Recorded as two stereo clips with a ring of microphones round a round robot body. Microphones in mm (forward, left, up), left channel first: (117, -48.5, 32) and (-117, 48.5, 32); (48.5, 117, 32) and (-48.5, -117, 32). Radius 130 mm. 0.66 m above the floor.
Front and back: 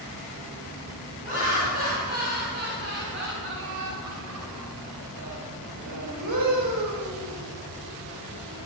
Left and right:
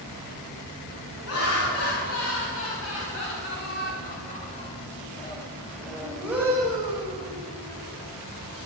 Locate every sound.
1.2 s laughter: 100° left, 4.5 m; by 7.4 s 175° right, 2.5 m